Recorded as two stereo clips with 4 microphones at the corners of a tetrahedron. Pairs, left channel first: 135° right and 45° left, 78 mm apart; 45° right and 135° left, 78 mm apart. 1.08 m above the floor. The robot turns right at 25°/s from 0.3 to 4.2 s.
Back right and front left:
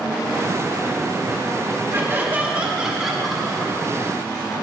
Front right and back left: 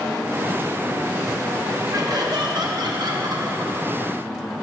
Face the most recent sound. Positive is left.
turn(degrees=160)